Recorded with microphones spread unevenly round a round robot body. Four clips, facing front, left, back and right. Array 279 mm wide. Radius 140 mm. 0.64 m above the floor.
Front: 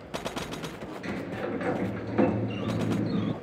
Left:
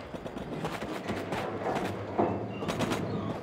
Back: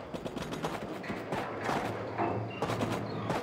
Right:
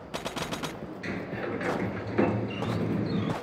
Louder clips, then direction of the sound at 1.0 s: Right 3 dB, front 6 dB; 45° right.